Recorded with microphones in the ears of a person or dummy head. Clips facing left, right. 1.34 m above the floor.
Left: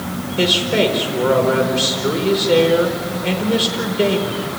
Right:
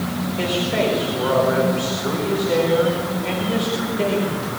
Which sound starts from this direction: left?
A man speaking, at 0.4 s.